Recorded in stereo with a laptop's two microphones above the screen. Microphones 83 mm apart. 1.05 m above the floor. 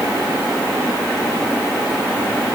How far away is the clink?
I don't hear a clink.